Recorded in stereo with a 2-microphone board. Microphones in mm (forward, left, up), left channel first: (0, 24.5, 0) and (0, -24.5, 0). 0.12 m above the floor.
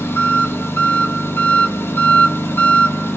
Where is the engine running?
45° left (ahead or behind), 0.9 m.